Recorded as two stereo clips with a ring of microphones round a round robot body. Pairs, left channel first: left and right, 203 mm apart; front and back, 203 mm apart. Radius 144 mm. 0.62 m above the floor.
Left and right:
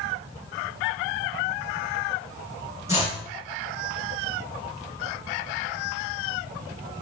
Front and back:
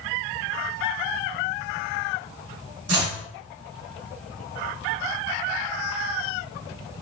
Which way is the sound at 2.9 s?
170° right.